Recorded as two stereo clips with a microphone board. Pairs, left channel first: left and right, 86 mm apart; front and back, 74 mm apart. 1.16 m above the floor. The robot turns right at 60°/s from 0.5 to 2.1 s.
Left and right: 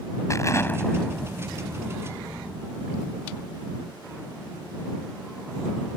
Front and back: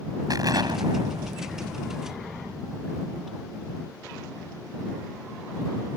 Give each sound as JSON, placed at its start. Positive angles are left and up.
{"t": 0.3, "sound": "an explosion", "azimuth_deg": 145}